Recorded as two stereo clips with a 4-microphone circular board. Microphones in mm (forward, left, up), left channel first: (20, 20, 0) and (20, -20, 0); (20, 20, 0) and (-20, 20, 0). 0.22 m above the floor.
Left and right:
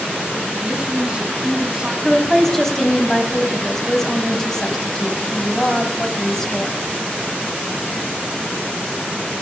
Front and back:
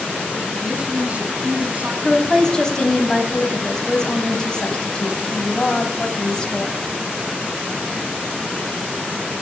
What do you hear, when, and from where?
0.6 s a woman speaking: 145° right, 2.0 m
2.0 s a woman speaking: 30° left, 1.3 m